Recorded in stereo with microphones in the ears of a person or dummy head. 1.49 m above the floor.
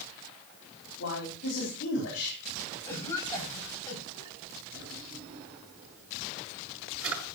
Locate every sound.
1.0 s a man speaking: 65° left (ahead or behind), 4 m
2.9 s a cough: 20° left (ahead or behind), 6 m
4.7 s a drawer: 80° right, 6.5 m